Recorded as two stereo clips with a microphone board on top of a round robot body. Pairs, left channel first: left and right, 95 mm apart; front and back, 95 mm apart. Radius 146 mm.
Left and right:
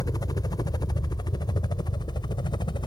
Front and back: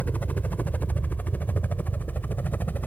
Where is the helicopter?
65° left; by 2.9 s 70° left.